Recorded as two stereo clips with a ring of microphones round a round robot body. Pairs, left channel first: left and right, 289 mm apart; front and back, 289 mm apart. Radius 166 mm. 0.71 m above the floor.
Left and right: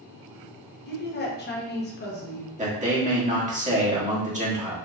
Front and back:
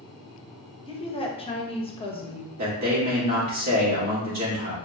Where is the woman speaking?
60° left, 0.8 m.